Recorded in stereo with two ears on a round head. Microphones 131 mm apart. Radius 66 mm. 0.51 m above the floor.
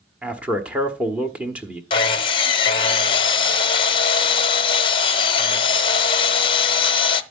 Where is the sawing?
35° left (ahead or behind), 0.8 m.